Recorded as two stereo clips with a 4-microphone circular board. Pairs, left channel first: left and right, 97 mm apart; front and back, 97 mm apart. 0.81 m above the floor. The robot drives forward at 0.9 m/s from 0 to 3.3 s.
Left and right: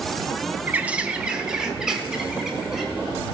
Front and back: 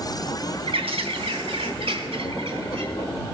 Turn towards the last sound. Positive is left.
turn(degrees=-175)